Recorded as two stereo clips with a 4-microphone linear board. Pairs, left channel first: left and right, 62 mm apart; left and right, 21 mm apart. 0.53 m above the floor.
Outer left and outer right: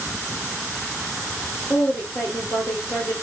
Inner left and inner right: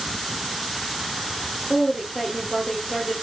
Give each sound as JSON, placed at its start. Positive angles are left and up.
{"t": 1.7, "sound": "a woman speaking", "side_deg": 50, "distance_m": 1.5}